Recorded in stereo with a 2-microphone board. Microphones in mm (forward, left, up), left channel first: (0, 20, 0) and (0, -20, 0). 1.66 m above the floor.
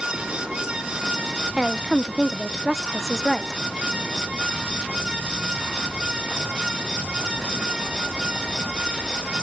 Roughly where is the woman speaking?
Centre.